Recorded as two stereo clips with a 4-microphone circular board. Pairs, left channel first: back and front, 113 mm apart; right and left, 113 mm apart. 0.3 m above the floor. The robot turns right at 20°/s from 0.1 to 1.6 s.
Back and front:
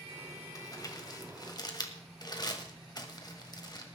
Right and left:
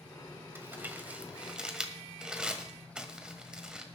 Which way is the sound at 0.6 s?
150° left.